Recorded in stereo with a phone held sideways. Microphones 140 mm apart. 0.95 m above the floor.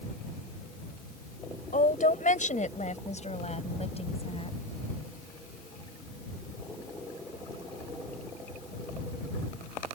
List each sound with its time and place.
1.7 s a woman speaking: 75° left (ahead or behind); by 4.6 s 45° left (ahead or behind)